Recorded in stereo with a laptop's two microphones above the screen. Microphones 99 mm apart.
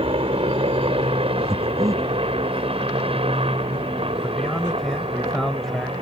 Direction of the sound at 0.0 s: 70° right (ahead or behind).